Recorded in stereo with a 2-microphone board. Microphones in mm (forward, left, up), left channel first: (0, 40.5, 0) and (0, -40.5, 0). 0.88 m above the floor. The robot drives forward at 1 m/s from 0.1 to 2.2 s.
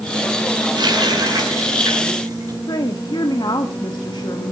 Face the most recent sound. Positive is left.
turn(degrees=65)  # may be behind; listen again after turning